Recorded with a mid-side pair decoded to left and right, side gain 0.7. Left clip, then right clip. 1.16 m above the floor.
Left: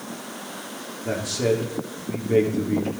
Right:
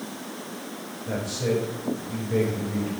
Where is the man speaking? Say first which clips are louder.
Left 4 dB; 60° left, 3.5 m.